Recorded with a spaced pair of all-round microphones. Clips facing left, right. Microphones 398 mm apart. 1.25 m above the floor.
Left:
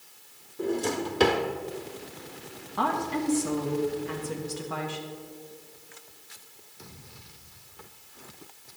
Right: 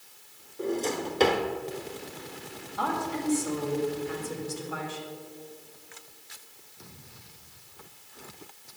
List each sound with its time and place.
0.6 s a drawer: 20° left (ahead or behind), 1.0 m
2.8 s a woman speaking: 75° left (ahead or behind), 1.4 m